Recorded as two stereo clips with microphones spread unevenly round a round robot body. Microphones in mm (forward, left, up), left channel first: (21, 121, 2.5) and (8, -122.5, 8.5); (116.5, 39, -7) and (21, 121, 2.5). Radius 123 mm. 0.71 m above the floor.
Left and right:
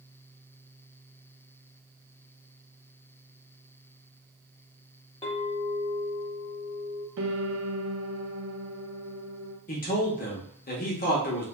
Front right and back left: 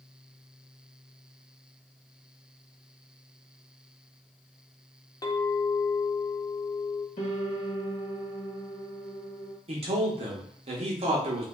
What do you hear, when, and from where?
5.2 s a clink: 20° left, 1.0 m
7.2 s a piano: 70° right, 0.6 m
9.7 s a man speaking: 130° left, 0.8 m